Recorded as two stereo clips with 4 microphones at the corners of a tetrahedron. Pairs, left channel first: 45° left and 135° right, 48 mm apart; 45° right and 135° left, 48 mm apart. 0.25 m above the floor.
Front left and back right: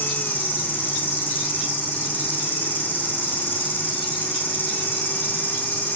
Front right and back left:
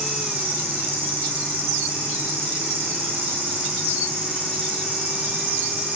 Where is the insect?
90° left, 5 m.